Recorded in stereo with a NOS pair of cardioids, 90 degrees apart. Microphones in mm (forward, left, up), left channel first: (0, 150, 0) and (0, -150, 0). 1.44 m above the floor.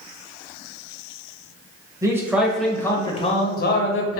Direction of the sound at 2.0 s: 10° right.